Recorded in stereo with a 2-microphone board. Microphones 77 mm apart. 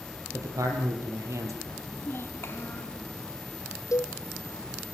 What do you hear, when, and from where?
0.3 s a man speaking: 45° right (ahead or behind), 4 m
1.8 s a child speaking: 30° left (ahead or behind), 3 m
3.9 s a cowbell: 45° left (ahead or behind), 1.1 m